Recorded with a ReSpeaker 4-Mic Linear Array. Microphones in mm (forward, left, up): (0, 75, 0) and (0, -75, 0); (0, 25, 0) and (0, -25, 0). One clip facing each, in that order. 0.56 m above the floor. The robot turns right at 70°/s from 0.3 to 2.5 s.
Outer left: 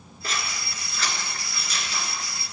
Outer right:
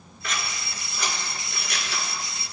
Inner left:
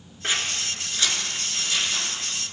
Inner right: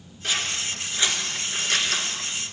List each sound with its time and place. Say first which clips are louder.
0.2 s scissors: even, even; 35° left (ahead or behind), 1.7 m; by 2.1 s 80° right, 1.7 m